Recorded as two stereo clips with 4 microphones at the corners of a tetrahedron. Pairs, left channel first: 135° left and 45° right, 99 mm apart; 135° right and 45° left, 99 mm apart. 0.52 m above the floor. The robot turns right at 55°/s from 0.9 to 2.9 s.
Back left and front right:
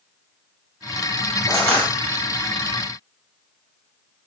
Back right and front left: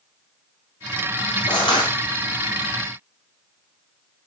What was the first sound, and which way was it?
Crushing, straight behind.